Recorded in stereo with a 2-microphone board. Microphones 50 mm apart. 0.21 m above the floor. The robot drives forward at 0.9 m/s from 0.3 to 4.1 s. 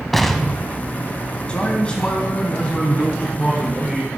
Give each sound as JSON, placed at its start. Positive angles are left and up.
{"t": 0.1, "sound": "an explosion", "side_deg": 5, "distance_m": 0.6}
{"t": 1.5, "sound": "a man speaking", "side_deg": 25, "distance_m": 1.0}